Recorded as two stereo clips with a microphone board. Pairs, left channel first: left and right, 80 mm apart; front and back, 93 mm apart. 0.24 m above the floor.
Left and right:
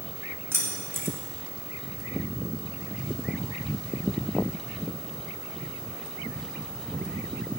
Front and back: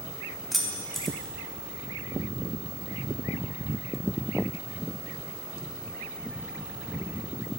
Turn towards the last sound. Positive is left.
turn(degrees=-90)